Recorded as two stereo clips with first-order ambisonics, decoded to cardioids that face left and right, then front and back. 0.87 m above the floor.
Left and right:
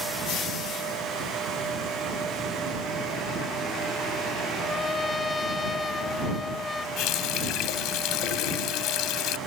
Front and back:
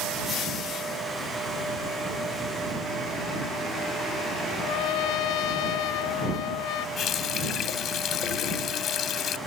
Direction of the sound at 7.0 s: 55° left.